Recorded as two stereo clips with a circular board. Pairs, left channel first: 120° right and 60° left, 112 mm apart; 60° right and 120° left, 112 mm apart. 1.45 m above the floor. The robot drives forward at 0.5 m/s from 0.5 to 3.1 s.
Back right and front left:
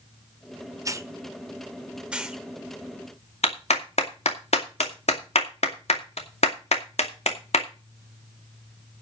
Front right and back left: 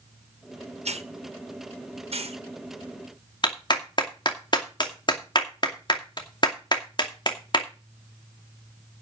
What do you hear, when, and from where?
0.8 s a hiss: 120° left, 1.0 m; by 2.4 s 145° left, 1.5 m
3.4 s a clap: 110° right, 2.5 m